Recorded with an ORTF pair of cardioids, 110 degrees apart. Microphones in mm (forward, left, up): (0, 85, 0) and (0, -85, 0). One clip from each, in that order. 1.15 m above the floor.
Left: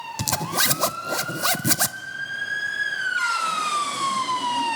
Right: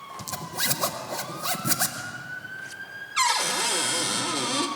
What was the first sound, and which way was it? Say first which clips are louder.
A zipper: left 7 dB; 55° left.